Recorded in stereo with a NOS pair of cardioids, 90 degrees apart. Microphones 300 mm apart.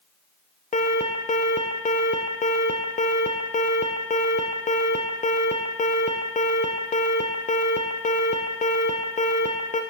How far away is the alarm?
About 1.0 m.